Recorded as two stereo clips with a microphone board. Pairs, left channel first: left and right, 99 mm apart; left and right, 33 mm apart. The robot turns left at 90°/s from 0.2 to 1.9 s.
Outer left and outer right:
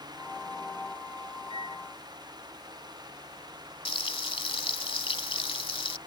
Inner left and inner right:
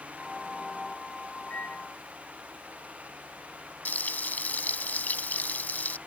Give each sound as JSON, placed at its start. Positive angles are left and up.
{"t": 1.5, "sound": "a microwave", "azimuth_deg": 115}
{"t": 3.9, "sound": "frying", "side_deg": 65}